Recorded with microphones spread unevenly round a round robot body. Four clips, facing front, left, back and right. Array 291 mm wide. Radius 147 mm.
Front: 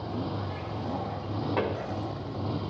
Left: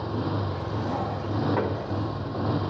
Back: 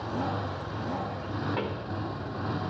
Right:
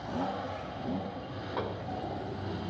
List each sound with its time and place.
0.0 s a motorcycle: 85° left; by 2.7 s 90° left
1.6 s a pop: 60° left